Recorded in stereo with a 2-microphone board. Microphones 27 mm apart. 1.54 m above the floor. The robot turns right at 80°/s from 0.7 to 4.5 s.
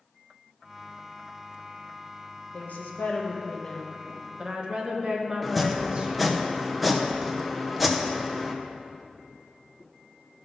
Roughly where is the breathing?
No breathing in this recording.